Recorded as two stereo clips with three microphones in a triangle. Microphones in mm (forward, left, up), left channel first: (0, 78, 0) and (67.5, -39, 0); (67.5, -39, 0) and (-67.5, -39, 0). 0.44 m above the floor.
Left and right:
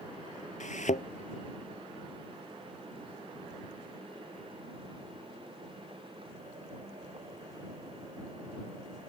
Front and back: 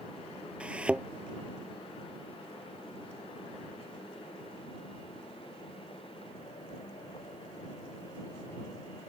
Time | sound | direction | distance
0.6 | a thud | 100° left | ?